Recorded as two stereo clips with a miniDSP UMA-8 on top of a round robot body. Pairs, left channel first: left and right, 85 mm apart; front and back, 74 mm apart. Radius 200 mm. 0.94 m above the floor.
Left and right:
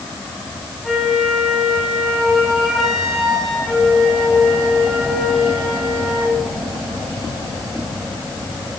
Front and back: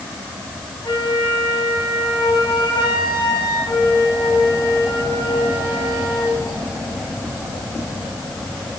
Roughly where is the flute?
Ahead.